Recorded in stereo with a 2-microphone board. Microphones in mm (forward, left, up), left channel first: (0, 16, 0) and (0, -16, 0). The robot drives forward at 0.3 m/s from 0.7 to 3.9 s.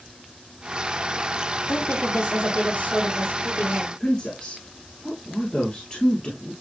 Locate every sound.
1.7 s a woman speaking: 55° left (ahead or behind), 4 m; by 3.9 s 50° left (ahead or behind), 4.5 m
4.0 s a woman speaking: 25° left (ahead or behind), 1.8 m